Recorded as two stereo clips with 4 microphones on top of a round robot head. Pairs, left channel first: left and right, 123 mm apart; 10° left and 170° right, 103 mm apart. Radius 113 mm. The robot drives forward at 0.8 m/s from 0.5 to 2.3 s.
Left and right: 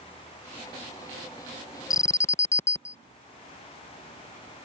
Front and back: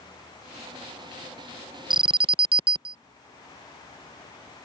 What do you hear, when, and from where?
1.9 s an alarm: 150° left; by 3.0 s 160° left